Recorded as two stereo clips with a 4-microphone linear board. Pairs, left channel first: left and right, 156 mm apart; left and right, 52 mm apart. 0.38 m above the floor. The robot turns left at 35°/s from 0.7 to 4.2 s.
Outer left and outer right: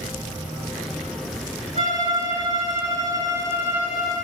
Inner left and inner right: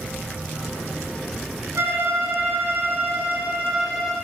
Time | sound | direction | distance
1.8 | a violin | 95° right | 0.8 m